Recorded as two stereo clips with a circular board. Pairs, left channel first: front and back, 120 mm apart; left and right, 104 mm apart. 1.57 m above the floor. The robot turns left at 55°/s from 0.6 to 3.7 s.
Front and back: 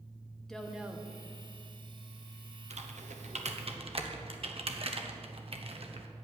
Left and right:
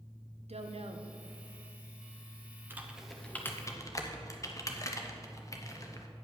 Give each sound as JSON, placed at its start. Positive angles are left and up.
{"t": 0.5, "sound": "a woman speaking", "azimuth_deg": -85, "distance_m": 0.9}
{"t": 2.7, "sound": "typing on a keyboard", "azimuth_deg": -160, "distance_m": 0.8}